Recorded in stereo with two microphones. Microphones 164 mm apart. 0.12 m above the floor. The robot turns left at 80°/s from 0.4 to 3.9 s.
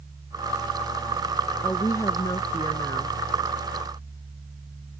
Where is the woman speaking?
10° left (ahead or behind); by 3.1 s 15° left (ahead or behind).